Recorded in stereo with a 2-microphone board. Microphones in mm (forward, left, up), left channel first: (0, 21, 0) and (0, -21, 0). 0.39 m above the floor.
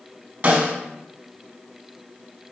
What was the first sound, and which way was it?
A snare drum, 45° right (ahead or behind).